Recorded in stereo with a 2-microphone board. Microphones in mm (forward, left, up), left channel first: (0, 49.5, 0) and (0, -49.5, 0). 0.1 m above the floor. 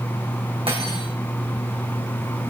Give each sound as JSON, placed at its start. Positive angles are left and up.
{"t": 0.7, "sound": "cutlery clinking", "side_deg": -75, "distance_m": 3.5}